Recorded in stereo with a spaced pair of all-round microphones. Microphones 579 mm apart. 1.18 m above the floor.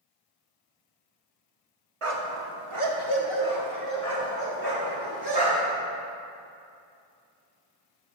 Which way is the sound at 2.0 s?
60° right (ahead or behind).